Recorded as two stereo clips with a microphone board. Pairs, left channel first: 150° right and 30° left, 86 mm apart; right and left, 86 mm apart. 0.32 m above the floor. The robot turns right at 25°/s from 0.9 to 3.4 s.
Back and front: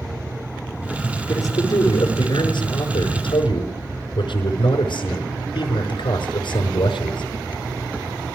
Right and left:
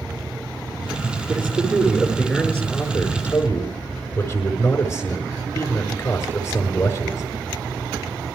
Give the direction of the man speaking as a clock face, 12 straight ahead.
7 o'clock.